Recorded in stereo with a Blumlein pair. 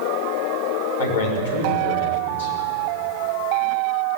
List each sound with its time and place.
1.0 s a man speaking: 55° left, 6 m